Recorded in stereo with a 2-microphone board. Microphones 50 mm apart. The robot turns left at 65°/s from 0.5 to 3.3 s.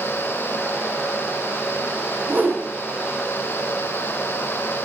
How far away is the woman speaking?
No woman speaking in this recording.